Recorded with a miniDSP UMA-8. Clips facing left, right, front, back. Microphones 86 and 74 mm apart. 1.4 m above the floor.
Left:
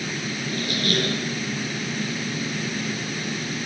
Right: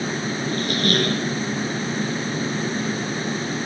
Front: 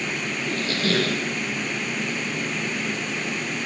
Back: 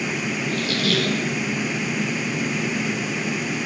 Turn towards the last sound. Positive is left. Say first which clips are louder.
# right 3 dB, even
turn(degrees=-50)